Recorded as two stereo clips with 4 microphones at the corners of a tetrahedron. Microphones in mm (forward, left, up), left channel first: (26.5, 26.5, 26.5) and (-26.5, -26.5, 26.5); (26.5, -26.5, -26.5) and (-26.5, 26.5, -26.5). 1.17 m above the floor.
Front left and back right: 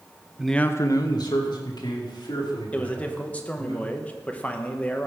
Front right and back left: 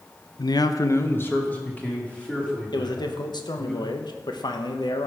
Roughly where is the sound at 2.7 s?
Ahead right.